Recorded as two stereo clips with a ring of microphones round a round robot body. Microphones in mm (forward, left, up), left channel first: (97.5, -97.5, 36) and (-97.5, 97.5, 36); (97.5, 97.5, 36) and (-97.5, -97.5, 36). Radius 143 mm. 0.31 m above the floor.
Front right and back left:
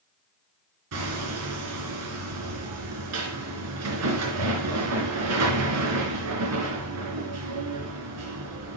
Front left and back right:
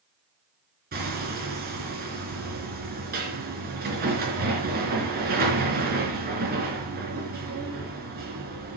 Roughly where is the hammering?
Behind.